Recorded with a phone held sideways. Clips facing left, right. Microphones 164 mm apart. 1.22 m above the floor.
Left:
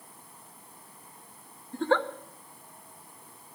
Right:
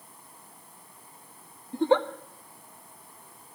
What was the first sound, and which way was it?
A giggle, 15° right (ahead or behind).